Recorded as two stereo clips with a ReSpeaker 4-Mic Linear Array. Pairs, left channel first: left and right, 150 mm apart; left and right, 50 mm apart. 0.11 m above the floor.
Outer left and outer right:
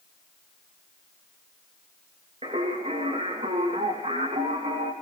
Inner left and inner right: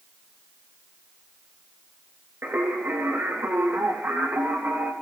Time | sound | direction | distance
2.4 | singing | 45° right (ahead or behind) | 4 m